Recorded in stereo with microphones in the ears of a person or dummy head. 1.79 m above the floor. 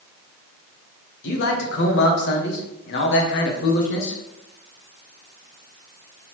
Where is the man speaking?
65° left (ahead or behind), 1.2 m.